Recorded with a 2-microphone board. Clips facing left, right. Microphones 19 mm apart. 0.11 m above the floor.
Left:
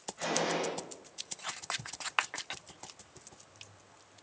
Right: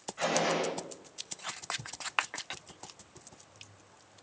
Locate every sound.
0.2 s a gunshot: 30° right (ahead or behind), 6 m